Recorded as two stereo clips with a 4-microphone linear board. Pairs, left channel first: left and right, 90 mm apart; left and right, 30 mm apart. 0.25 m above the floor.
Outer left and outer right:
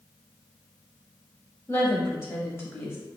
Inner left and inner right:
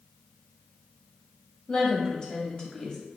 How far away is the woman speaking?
About 1.3 m.